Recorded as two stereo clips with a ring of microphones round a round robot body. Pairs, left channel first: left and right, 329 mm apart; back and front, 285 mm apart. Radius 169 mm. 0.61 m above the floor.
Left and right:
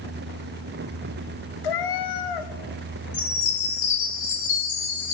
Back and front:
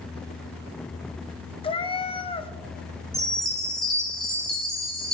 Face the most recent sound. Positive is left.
turn(degrees=90)